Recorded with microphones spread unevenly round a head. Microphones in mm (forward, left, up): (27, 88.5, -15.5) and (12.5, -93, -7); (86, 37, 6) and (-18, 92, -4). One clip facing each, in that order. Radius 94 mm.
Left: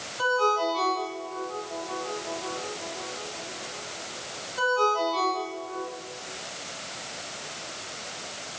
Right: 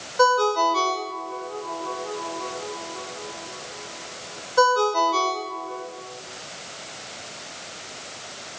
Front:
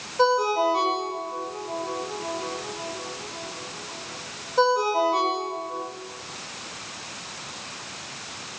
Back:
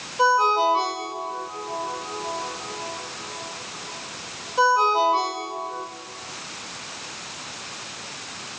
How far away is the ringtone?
About 5 m.